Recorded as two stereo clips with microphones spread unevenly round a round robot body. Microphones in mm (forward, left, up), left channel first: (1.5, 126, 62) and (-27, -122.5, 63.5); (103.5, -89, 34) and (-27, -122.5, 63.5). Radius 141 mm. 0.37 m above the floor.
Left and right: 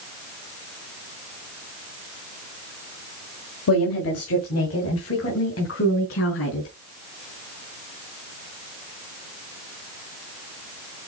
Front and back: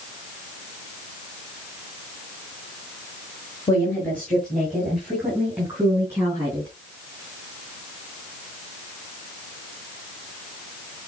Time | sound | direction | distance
3.7 | a woman speaking | 75° left | 1.9 m